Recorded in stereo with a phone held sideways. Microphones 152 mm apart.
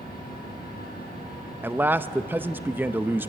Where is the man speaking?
15° right (ahead or behind), 0.6 m.